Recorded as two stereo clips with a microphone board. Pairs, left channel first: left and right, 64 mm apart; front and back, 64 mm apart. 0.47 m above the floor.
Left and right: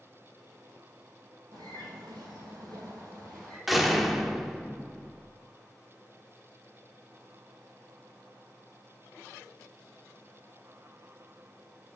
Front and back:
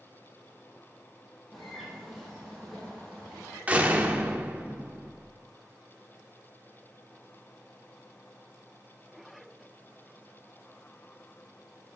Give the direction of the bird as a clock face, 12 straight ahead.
3 o'clock.